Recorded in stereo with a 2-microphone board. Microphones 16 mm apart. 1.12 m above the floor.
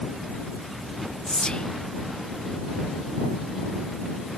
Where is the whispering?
65° left (ahead or behind).